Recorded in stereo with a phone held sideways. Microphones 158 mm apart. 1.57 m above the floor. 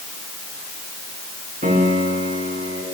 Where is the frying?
No frying in this recording.